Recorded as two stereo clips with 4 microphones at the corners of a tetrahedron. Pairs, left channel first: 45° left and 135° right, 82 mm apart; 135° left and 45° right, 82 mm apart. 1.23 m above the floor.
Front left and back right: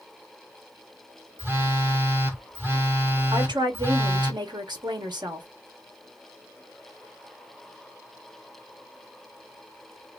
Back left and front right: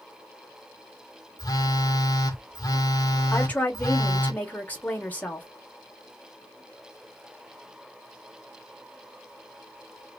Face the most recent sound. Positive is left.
turn(degrees=-155)